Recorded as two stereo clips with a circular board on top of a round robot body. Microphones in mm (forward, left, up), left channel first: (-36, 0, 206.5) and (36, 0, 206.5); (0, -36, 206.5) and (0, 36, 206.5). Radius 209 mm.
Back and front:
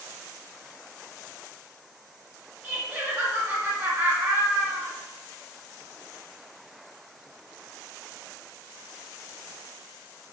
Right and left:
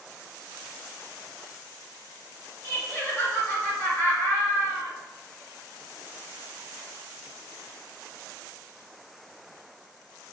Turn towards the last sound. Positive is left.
turn(degrees=-55)